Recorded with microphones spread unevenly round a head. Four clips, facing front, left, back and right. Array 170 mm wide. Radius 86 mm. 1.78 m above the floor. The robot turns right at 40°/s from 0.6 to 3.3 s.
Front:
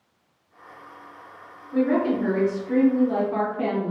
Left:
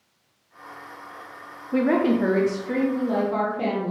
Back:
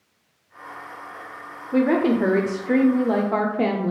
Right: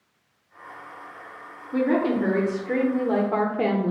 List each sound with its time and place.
1.7 s a woman speaking: 145° left, 0.6 m; by 3.9 s 150° right, 0.6 m